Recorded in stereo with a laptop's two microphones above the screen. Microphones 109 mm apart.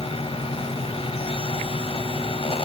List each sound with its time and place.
0.0 s a fan: 60° left (ahead or behind), 1.4 m